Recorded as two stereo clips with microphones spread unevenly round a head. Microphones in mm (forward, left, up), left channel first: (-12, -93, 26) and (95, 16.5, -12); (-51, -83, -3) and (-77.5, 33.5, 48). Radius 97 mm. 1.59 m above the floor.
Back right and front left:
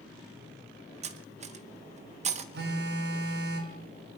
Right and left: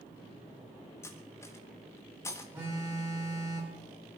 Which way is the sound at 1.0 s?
25° left.